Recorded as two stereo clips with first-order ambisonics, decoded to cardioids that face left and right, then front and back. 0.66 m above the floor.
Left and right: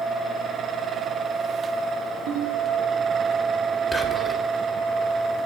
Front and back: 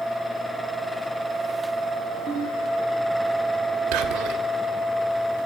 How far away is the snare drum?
I don't hear a snare drum.